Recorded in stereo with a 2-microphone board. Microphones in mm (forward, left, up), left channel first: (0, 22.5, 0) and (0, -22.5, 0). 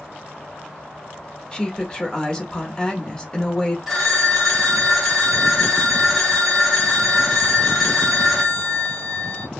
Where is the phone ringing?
5° right (ahead or behind), 1.2 m.